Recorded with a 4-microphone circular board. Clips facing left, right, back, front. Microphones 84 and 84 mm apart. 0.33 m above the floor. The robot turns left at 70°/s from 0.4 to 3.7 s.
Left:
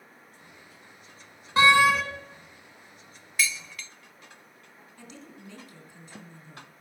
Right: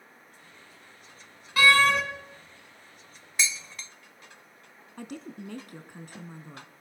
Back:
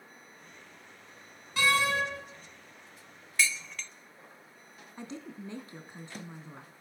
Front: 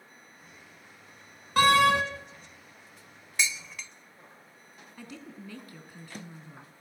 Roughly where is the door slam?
Ahead left.